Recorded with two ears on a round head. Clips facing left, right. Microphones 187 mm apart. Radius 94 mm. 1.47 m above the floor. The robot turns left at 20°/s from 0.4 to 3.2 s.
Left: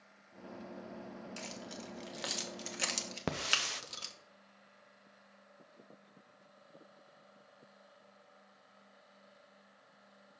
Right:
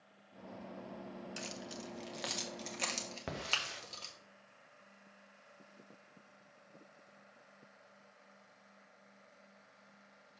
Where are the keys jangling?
15° right (ahead or behind), 0.8 m; by 4.2 s 20° left (ahead or behind), 0.8 m.